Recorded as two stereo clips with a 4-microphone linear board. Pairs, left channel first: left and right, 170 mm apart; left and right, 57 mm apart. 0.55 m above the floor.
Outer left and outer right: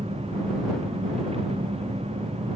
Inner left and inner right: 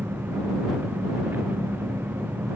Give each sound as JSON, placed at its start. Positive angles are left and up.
{"t": 0.0, "sound": "an engine running", "side_deg": -40}